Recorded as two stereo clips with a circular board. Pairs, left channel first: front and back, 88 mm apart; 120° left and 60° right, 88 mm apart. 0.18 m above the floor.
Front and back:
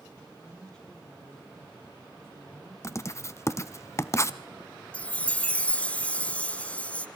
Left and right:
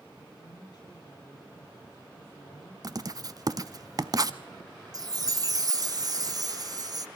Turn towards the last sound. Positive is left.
turn(degrees=-70)